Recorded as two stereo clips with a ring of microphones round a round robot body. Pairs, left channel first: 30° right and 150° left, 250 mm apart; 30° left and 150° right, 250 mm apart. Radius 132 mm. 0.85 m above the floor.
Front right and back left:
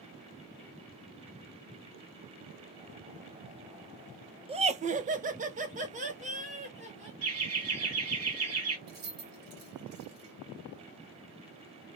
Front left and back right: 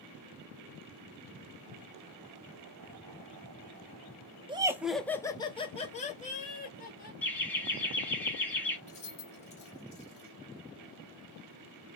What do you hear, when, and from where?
4.5 s laughter: 175° left, 0.5 m; by 7.1 s 85° left, 1.5 m
7.2 s laughter: 115° left, 1.8 m
8.9 s keys jangling: 95° left, 1.5 m